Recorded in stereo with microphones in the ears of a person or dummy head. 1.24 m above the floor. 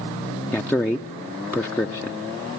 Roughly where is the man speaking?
Centre.